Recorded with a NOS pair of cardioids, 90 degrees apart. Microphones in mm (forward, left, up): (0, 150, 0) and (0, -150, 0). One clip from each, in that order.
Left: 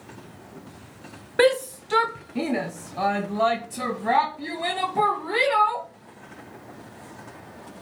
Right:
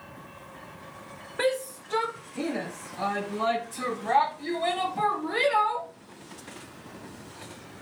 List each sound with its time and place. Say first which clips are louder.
1.4 s a shout: left 7 dB; 45° left, 0.6 m; by 5.9 s 65° left, 3.5 m